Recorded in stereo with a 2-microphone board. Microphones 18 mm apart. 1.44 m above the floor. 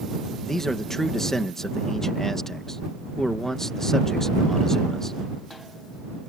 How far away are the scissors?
I don't hear scissors.